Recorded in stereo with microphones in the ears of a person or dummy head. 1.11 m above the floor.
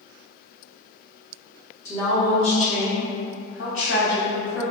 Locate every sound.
1.9 s a woman speaking: 20° left (ahead or behind), 1.0 m; by 4.6 s 55° left (ahead or behind), 4 m